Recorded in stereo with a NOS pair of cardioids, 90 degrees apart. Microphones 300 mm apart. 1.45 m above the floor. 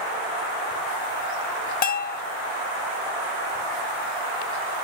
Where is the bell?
30° left, 0.7 m.